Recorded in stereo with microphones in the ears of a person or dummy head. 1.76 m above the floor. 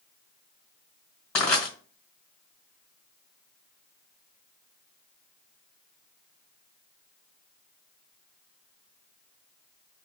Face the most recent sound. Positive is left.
turn(degrees=10)  # may be behind; listen again after turning